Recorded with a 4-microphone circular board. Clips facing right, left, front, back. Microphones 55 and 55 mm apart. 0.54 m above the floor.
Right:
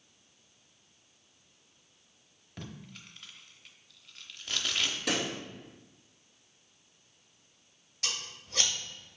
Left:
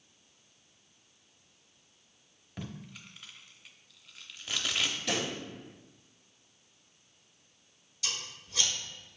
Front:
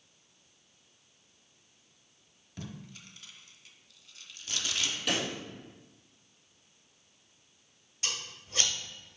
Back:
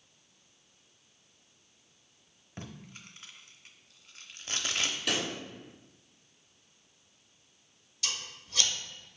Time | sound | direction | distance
2.6 | tape being pulled | 170° left | 0.8 m
5.1 | a pop | 90° right | 3 m
8.0 | scissors | 60° right | 1.6 m